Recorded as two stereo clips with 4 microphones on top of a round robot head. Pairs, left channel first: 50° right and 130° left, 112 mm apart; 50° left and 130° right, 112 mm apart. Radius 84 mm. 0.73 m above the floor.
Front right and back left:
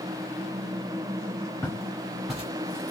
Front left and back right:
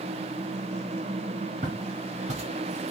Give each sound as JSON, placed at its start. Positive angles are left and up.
{"t": 1.6, "sound": "footsteps", "azimuth_deg": -115, "distance_m": 1.1}